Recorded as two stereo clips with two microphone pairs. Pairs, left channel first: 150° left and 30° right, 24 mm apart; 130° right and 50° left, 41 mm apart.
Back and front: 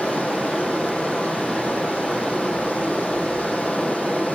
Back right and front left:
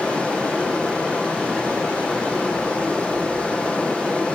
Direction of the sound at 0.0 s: 160° left.